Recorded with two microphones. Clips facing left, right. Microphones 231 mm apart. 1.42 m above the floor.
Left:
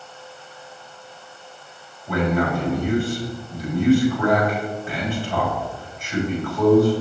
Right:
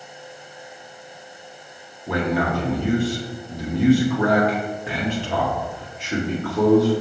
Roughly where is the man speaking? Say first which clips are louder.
Left 1 dB; right.